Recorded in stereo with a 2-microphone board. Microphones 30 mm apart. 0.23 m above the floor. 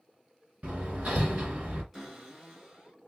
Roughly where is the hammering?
Right.